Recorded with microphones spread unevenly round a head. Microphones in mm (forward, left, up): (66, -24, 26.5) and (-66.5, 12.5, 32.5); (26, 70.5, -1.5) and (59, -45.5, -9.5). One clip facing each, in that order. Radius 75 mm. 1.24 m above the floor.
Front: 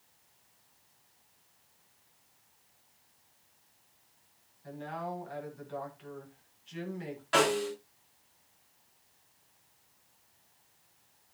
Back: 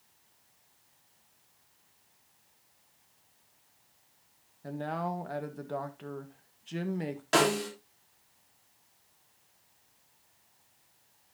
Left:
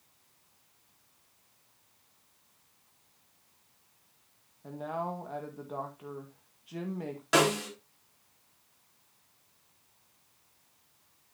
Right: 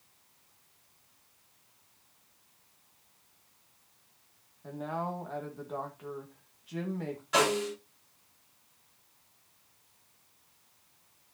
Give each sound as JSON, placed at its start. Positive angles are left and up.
{"t": 4.6, "sound": "a man speaking", "azimuth_deg": -170, "distance_m": 1.7}
{"t": 7.3, "sound": "a snare drum", "azimuth_deg": 120, "distance_m": 4.0}